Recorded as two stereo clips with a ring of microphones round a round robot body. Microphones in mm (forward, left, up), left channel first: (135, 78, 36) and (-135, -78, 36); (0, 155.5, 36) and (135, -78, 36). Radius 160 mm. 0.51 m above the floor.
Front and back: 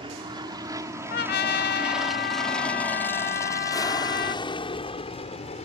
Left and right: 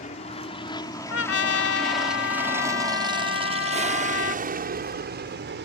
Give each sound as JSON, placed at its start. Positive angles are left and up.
{"t": 0.0, "sound": "an aircraft", "azimuth_deg": 155}
{"t": 1.1, "sound": "a trumpet", "azimuth_deg": 85}